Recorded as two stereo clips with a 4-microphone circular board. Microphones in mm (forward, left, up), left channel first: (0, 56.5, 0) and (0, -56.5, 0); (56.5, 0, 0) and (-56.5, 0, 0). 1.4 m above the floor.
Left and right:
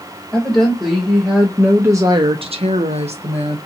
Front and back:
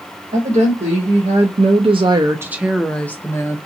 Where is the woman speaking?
170° left, 1.3 m; by 3.6 s 60° right, 0.9 m.